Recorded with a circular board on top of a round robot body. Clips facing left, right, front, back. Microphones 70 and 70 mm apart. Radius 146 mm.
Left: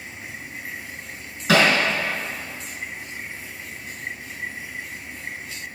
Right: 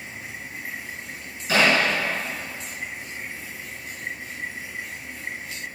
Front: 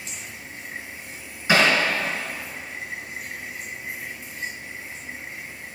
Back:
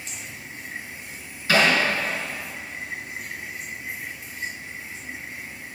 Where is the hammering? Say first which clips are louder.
Left 2 dB, front 1 dB; 70° left, 4 m.